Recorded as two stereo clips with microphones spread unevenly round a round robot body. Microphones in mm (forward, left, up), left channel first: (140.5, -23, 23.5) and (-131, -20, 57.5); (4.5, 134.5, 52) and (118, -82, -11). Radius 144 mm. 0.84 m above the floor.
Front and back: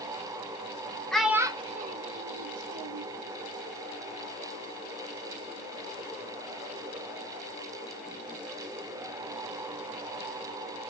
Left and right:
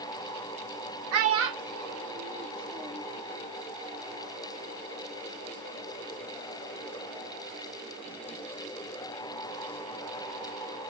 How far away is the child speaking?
About 1.0 m.